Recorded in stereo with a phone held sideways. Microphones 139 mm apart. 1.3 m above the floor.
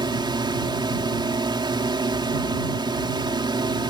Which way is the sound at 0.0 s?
30° right (ahead or behind).